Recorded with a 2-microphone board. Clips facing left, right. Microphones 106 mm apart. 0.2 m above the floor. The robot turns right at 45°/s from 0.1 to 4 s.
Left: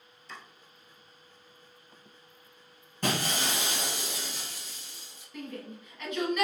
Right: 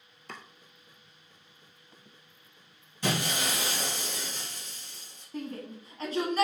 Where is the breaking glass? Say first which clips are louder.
Even; 130° left, 2.5 m; by 5.2 s 170° left, 2.5 m.